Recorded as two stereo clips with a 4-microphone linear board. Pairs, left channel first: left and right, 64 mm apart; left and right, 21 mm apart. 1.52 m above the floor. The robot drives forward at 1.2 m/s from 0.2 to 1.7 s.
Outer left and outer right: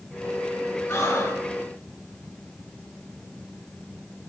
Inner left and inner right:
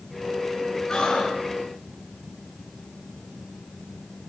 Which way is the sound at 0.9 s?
50° left (ahead or behind).